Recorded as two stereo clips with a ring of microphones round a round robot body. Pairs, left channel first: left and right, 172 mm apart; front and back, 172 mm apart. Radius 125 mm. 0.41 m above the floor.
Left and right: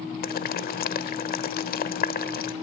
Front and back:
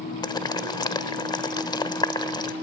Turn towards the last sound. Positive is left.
turn(degrees=65)